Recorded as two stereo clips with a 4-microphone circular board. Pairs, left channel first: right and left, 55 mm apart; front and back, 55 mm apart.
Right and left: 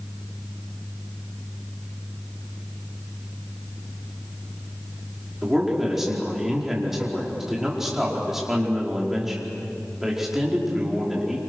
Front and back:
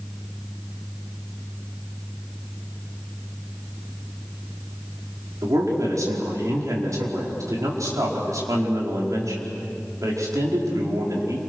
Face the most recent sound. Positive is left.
turn(degrees=175)